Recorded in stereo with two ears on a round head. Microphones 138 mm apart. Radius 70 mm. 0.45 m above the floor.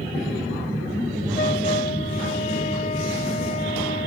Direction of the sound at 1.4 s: 45° left (ahead or behind).